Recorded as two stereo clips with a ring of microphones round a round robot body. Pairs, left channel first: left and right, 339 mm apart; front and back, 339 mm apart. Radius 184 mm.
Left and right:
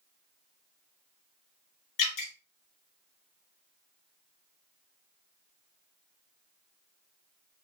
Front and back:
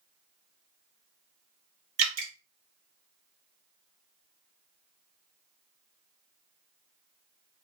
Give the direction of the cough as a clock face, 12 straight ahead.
I don't hear a cough.